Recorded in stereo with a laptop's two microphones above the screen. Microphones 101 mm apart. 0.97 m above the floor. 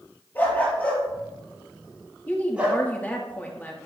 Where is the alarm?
No alarm in this recording.